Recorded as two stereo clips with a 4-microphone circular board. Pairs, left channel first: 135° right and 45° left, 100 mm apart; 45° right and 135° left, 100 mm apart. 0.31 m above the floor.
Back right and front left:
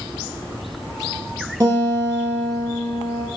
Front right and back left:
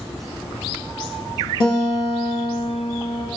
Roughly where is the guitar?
Ahead.